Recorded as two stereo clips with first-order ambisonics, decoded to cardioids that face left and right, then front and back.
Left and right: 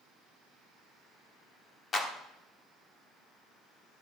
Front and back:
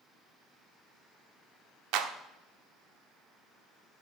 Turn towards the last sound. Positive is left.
turn(degrees=160)